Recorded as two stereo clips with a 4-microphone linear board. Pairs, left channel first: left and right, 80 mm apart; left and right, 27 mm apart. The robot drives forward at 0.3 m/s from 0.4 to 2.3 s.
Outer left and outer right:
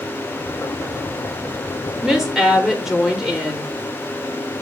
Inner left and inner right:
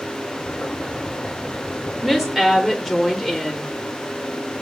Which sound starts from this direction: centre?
A woman speaking, at 2.0 s.